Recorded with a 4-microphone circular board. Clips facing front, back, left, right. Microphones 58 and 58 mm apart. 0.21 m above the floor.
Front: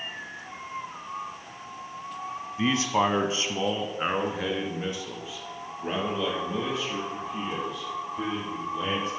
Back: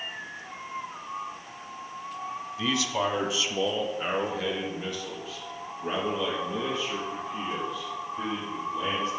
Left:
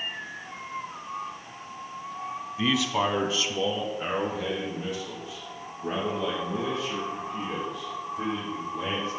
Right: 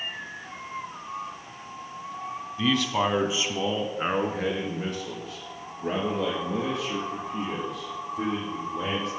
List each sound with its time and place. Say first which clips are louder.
2.6 s a man speaking: front 4 dB, right 1 dB; 25° left, 1.3 m; by 9.1 s 75° right, 7.5 m